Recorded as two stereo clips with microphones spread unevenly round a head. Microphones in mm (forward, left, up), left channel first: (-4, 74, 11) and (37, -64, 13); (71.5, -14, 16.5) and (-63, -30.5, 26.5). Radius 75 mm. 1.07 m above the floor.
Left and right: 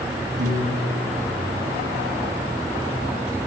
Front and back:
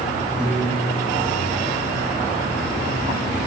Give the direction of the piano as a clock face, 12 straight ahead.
3 o'clock.